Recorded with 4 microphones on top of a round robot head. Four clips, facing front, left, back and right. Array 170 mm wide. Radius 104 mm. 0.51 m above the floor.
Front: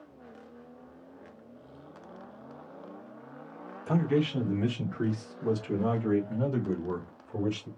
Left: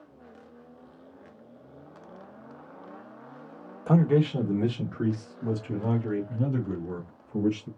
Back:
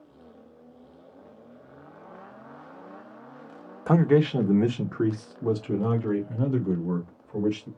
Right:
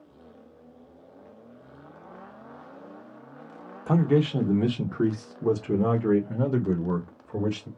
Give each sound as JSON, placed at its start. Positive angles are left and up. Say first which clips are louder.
{"t": 3.9, "sound": "a man speaking", "louder": "even, back 7 dB", "azimuth_deg": 180, "distance_m": 1.4}